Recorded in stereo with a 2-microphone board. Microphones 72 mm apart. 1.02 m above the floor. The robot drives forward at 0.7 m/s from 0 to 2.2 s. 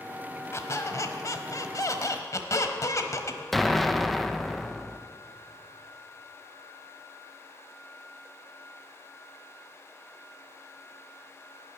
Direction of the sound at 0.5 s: 40° left (ahead or behind).